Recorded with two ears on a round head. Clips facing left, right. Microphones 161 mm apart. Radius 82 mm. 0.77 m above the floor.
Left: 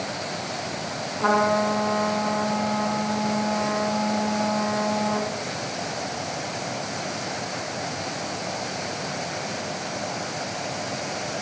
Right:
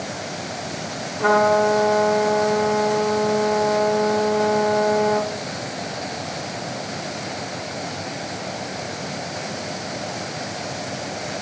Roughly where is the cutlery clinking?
No cutlery clinking in this recording.